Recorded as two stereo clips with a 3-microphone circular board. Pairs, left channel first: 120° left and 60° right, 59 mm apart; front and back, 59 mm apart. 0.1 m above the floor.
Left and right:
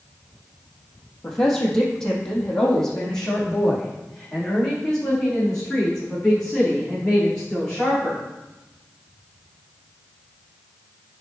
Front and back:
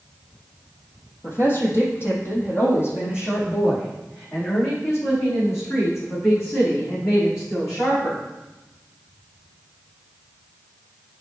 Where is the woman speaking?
45° left, 2.5 m.